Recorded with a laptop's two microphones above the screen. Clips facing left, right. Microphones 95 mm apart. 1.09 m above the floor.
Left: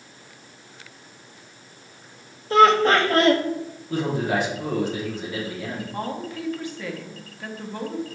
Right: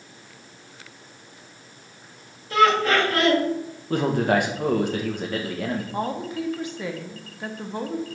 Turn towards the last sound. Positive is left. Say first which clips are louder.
# right 3 dB
turn(degrees=-20)  # may be behind; listen again after turning